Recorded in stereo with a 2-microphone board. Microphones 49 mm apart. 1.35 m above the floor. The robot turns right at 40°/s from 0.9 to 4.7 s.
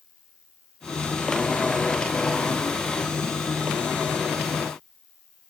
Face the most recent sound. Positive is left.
turn(degrees=30)